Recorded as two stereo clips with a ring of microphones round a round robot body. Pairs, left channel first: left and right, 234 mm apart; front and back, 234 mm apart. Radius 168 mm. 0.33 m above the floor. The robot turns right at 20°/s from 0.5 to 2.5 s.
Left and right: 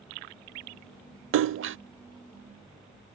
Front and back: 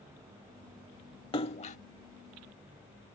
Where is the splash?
70° right; by 1.8 s 60° right.